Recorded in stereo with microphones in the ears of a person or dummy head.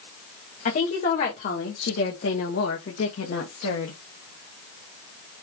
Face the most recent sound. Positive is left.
turn(degrees=85)